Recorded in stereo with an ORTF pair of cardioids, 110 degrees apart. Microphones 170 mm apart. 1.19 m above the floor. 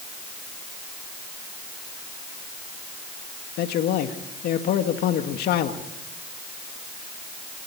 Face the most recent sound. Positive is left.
turn(degrees=70)